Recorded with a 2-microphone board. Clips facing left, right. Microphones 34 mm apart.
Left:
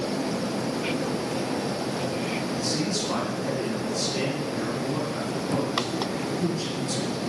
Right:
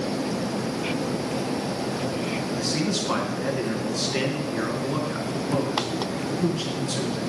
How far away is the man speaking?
About 4.5 m.